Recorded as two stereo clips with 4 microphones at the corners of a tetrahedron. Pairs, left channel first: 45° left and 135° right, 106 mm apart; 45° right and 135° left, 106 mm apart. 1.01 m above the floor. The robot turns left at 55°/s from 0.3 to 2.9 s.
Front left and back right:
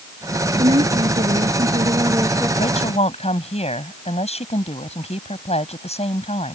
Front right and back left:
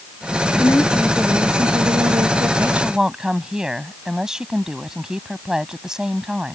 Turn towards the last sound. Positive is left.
turn(degrees=50)